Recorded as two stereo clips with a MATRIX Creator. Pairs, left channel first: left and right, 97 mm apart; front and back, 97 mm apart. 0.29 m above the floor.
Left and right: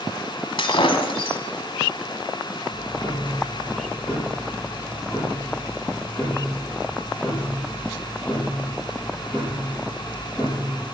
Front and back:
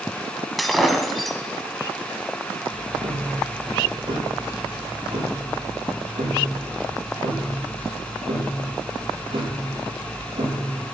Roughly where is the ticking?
Behind.